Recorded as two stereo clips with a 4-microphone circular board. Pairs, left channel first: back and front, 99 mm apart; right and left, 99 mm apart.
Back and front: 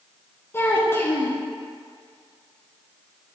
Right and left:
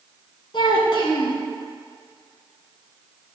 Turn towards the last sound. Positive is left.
turn(degrees=-115)